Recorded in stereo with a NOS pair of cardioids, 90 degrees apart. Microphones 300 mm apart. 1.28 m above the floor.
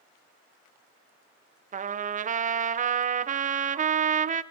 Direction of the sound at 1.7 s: 25° right.